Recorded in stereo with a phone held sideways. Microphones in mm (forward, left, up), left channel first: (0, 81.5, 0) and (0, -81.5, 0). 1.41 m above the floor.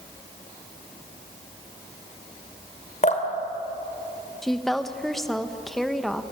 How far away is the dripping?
About 2.5 m.